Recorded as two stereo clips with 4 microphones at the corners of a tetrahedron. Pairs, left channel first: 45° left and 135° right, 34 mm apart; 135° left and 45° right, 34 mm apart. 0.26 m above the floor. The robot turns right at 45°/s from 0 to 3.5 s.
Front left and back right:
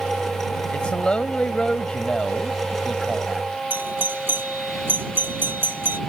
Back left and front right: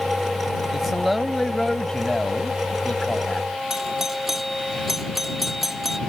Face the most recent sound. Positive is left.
turn(degrees=-130)